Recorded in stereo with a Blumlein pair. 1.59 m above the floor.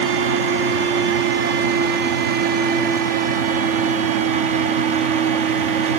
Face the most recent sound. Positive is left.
turn(degrees=-50)